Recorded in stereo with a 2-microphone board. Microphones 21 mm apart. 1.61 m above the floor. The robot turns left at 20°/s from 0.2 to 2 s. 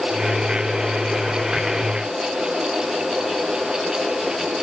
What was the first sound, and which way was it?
Only background noise.